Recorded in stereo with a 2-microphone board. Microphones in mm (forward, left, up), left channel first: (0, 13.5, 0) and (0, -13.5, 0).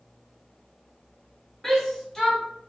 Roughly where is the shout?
Centre.